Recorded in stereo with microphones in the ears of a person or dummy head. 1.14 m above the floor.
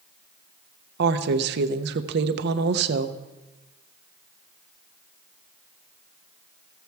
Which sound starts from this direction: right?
A woman speaking, at 1.0 s.